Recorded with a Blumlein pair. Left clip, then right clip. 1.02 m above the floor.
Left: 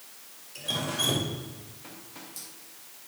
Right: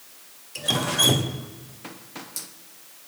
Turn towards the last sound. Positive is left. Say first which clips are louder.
# right 7 dB
turn(degrees=-25)